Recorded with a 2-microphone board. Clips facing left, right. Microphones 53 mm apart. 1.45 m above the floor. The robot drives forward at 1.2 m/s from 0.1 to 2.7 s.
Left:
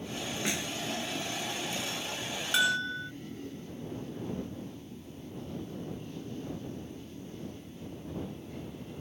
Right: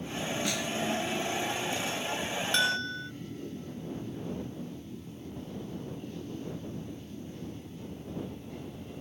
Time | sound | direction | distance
0.5 | a snare drum | 25° left (ahead or behind) | ?
2.5 | a bell | 5° left (ahead or behind) | ?